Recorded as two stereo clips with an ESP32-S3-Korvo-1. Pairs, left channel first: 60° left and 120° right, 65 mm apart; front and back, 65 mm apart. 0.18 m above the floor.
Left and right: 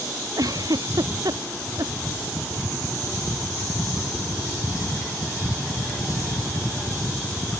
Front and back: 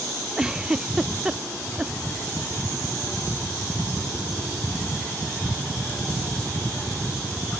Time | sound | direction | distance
0.4 | a giggle | 100° right | ?